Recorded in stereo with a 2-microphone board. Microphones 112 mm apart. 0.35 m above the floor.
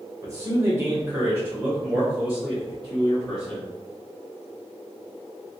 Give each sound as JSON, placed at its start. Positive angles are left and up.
{"t": 0.2, "sound": "a man speaking", "side_deg": -25, "distance_m": 1.0}